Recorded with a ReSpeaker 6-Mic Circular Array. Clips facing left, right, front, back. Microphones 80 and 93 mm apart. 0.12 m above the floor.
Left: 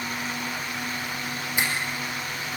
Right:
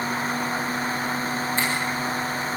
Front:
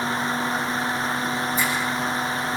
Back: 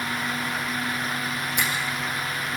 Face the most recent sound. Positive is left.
turn(degrees=165)